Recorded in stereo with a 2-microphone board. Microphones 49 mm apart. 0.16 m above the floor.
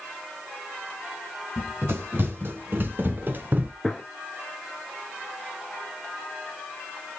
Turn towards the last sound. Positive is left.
turn(degrees=5)  # may be behind; listen again after turning